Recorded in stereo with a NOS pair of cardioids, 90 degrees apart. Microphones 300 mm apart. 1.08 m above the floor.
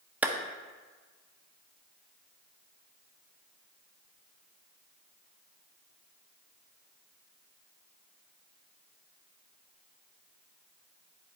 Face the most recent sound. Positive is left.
turn(degrees=-5)